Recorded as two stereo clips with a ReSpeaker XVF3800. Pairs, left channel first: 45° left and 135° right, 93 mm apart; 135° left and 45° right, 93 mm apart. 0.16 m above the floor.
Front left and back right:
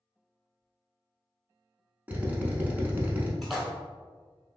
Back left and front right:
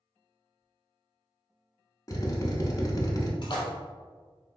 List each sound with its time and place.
2.1 s a drill: 160° left, 0.6 m
3.4 s a splash: 140° left, 1.0 m